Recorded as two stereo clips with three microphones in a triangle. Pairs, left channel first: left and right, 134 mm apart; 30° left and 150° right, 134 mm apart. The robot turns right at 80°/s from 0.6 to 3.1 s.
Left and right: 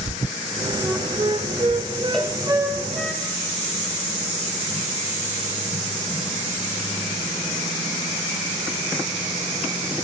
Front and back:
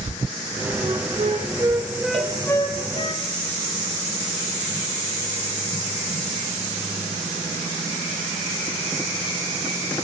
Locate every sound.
0.8 s a flute: 170° right, 0.8 m; by 3.1 s 15° left, 0.8 m
2.1 s a cowbell: 175° left, 1.2 m; by 2.4 s 165° right, 1.2 m